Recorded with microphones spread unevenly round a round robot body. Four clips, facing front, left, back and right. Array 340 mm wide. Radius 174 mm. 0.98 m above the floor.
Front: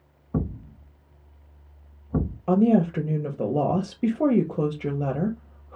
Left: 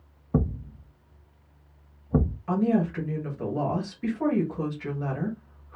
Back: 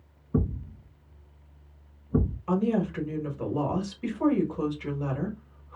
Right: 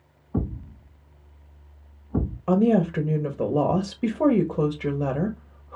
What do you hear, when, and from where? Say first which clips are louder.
0.3 s a thud: left 2 dB, back 1 dB; 70° left, 1.1 m
2.5 s a woman speaking: right 5 dB, front 7 dB; 45° right, 1.8 m